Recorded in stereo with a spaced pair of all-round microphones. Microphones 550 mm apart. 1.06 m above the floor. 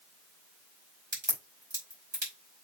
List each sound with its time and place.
1.1 s a crack: 50° right (ahead or behind), 4.5 m